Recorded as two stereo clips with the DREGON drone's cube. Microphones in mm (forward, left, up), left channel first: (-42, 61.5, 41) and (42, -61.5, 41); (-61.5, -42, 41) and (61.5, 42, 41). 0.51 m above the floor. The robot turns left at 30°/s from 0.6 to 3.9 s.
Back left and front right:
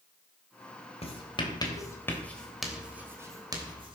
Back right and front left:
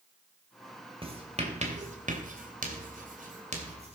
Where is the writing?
80° left, 3 m; by 4.0 s 5° right, 3 m.